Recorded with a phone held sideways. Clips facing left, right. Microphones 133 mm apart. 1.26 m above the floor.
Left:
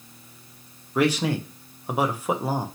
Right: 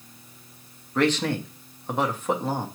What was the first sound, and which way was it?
A man speaking, 10° left (ahead or behind).